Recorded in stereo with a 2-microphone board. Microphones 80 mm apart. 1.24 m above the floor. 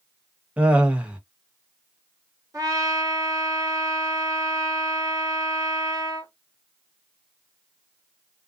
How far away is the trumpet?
About 1.4 m.